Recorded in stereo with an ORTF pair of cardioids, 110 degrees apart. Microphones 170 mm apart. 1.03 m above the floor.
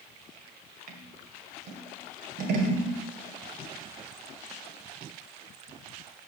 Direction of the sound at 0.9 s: 70° right.